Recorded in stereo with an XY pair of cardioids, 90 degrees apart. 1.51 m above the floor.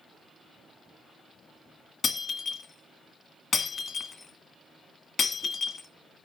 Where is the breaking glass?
60° left, 1.9 m.